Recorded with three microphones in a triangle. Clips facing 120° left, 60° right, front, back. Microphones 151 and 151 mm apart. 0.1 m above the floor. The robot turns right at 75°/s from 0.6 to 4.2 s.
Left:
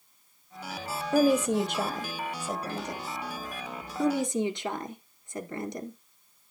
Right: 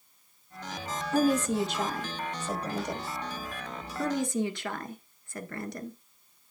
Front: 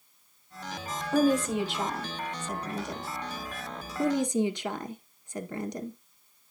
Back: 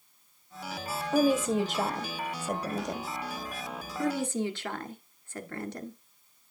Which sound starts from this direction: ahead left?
A woman speaking, at 4.0 s.